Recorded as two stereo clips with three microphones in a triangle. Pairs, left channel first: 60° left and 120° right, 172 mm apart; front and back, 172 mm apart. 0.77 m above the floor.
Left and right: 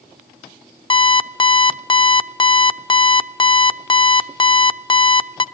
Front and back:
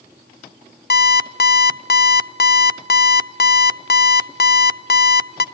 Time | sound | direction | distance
0.9 | an alarm clock | straight ahead | 0.6 m